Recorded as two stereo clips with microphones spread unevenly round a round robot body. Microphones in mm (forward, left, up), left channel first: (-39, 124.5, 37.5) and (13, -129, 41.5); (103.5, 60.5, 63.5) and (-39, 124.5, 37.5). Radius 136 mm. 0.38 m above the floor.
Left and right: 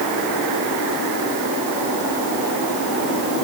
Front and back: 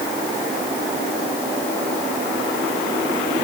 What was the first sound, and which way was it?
Only background noise.